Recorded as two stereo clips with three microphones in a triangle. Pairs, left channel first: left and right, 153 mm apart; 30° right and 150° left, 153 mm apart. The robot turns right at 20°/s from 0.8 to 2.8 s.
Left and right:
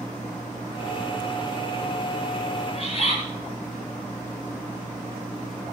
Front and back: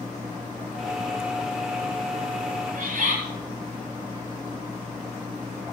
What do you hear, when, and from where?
2.7 s a bird: 130° left, 9.5 m; by 3.2 s 135° left, 9.5 m